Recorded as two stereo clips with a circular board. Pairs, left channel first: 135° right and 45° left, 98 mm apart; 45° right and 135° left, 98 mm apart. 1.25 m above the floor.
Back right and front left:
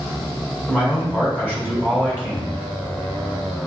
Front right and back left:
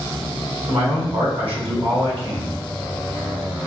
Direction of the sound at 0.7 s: 120° left.